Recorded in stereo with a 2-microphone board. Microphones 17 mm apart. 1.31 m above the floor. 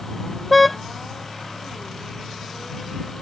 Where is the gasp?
No gasp in this recording.